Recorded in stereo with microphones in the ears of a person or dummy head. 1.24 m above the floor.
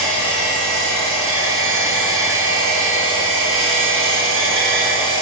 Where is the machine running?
75° right (ahead or behind), 3 m.